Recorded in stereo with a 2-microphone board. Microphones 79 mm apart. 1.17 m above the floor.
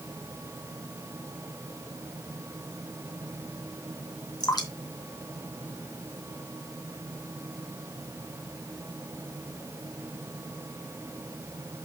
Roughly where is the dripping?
Left.